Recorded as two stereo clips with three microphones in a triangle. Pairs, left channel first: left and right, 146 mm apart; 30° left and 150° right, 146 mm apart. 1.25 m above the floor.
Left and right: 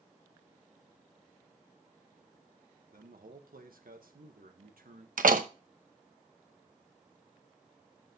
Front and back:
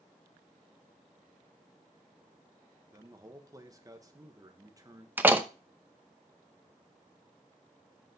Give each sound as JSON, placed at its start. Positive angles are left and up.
{"t": 2.9, "sound": "a man speaking", "azimuth_deg": -85, "distance_m": 1.3}
{"t": 5.2, "sound": "a door slam", "azimuth_deg": -70, "distance_m": 0.8}